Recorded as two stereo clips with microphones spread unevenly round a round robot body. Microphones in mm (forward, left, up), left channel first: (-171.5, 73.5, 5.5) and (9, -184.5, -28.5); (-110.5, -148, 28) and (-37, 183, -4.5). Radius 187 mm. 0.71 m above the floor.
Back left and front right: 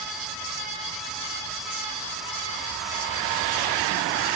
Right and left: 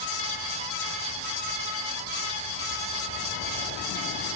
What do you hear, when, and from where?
Only background noise.